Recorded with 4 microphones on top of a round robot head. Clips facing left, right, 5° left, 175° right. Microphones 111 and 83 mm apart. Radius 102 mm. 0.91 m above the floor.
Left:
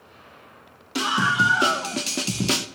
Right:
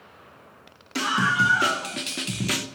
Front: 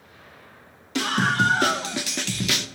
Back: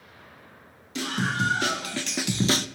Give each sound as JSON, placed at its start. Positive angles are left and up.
{"t": 0.9, "sound": "a scream", "azimuth_deg": 15, "distance_m": 1.6}